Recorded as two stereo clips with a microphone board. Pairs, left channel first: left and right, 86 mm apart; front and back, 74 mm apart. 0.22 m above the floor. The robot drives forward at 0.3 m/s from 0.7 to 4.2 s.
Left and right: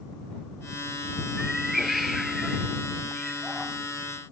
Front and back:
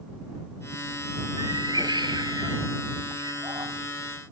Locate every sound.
1.4 s a cat meowing: straight behind